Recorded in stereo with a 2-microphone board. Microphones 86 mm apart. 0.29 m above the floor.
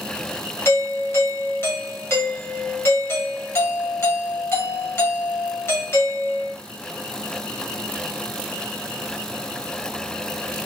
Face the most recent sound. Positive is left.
turn(degrees=30)  # may be behind; listen again after turning